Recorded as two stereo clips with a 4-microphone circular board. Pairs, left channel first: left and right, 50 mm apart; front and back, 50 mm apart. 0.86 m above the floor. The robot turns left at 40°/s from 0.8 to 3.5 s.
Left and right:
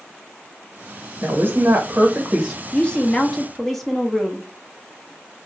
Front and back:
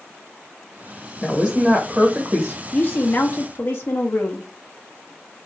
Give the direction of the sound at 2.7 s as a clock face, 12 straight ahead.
11 o'clock.